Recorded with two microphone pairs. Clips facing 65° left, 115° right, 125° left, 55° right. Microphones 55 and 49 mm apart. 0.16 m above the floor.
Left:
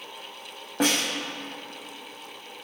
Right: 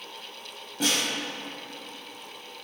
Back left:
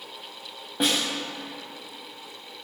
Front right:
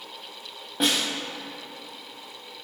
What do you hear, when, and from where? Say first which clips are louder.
0.8 s a snare drum: left 3 dB, even; 40° left, 3 m